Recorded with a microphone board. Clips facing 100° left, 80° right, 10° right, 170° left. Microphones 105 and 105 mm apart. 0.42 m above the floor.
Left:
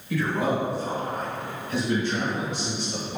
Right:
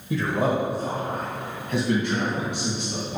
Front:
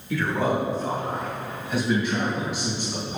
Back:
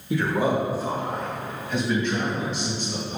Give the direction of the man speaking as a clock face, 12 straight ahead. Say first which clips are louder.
Right 1 dB, back 1 dB; 4 o'clock.